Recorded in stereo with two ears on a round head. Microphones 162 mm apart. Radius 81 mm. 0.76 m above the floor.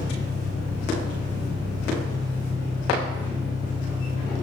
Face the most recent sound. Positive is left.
turn(degrees=-40)  # may be behind; listen again after turning